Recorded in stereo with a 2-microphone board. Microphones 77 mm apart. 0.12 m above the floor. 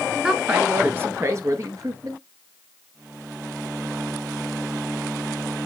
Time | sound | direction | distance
0.2 | a woman speaking | 10° right (ahead or behind) | 1.2 m